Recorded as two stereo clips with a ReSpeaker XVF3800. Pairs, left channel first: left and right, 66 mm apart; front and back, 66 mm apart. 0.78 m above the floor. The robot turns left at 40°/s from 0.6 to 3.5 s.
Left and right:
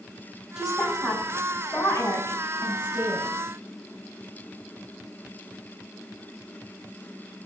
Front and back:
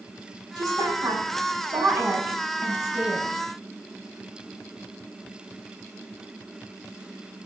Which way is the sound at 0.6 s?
170° right.